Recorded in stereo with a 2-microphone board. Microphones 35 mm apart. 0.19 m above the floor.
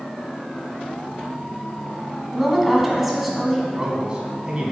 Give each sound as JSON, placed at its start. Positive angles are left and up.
{"t": 2.3, "sound": "a woman speaking", "side_deg": -5, "distance_m": 1.2}
{"t": 3.7, "sound": "a man speaking", "side_deg": -30, "distance_m": 1.4}